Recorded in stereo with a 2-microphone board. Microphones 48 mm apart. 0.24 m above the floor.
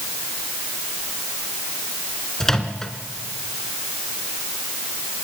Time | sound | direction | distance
2.4 | a microwave | 10° left (ahead or behind) | 2 m